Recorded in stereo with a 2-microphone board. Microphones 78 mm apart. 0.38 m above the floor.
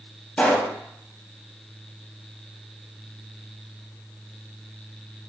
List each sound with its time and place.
0.4 s a pop: 15° left (ahead or behind), 0.8 m